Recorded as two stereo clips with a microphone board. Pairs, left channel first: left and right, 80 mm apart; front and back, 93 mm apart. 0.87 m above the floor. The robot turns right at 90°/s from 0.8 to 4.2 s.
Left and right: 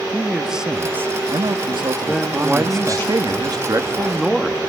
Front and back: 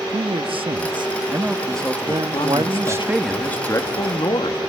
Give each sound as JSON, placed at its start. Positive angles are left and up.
{"t": 0.1, "sound": "a man speaking", "azimuth_deg": -170, "distance_m": 1.1}
{"t": 2.1, "sound": "a man speaking", "azimuth_deg": 160, "distance_m": 1.8}